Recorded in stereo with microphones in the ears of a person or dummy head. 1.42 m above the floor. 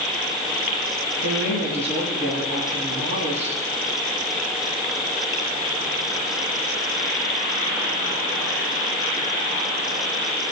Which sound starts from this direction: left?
A woman speaking, at 1.2 s.